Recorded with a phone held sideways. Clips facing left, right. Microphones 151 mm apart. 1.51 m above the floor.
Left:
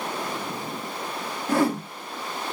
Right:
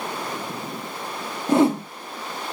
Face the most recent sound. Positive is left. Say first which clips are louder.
# right 5 dB
turn(degrees=-25)  # may be behind; listen again after turning